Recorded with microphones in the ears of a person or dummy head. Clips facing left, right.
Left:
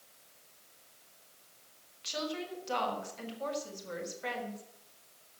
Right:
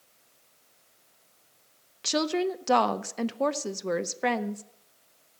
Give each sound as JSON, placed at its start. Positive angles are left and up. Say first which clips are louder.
{"t": 2.0, "sound": "a woman speaking", "louder": "right 11 dB", "side_deg": -80, "distance_m": 0.6}